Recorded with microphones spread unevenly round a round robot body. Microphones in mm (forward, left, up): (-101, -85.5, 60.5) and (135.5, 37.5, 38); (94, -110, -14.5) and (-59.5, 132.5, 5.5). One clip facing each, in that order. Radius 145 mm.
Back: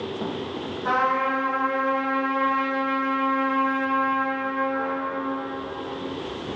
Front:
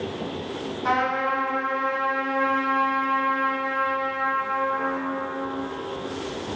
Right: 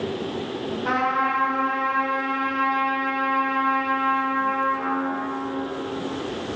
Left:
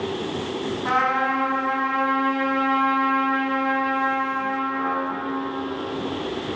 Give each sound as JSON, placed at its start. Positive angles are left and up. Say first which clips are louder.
{"t": 0.8, "sound": "a trumpet", "louder": "even, even", "azimuth_deg": 40, "distance_m": 1.1}